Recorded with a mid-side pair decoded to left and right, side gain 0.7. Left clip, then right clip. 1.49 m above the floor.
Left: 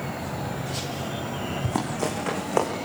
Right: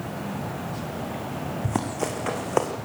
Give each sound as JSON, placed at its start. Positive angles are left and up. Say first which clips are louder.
{"t": 1.6, "sound": "running footsteps", "louder": "even", "azimuth_deg": -5, "distance_m": 5.5}